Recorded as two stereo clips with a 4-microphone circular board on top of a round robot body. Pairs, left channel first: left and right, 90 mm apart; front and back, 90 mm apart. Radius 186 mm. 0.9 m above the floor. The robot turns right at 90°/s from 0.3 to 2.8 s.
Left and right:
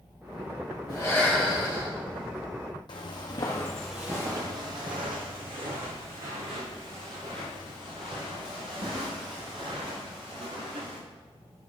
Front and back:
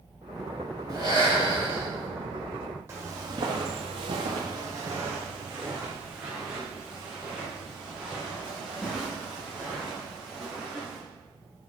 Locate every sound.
0.9 s breathing: 130° left, 5.5 m; by 1.9 s 135° right, 5.5 m
2.9 s footsteps: 120° left, 1.8 m; by 11.0 s 100° right, 10.5 m